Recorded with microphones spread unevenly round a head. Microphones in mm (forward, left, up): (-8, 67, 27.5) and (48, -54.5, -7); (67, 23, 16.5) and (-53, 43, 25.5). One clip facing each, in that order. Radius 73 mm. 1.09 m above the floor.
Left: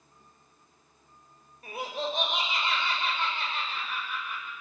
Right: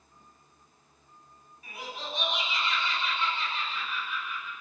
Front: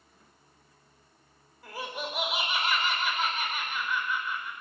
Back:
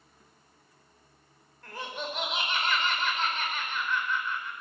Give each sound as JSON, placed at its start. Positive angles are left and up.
{"t": 1.6, "sound": "laughter", "azimuth_deg": 75, "distance_m": 4.5}